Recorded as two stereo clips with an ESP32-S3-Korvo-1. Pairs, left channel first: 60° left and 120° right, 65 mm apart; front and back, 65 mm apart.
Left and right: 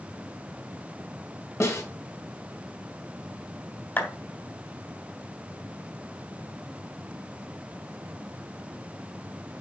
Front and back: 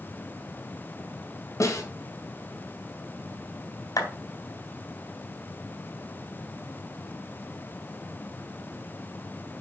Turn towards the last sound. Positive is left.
turn(degrees=5)